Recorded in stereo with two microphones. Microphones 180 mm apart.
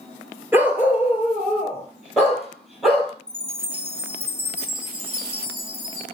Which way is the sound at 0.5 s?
10° right (ahead or behind).